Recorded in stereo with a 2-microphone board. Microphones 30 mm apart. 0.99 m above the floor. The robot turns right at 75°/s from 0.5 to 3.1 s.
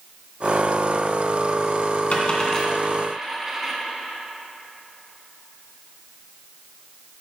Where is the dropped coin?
50° left (ahead or behind), 1.8 m; by 3.7 s 15° right (ahead or behind), 1.8 m.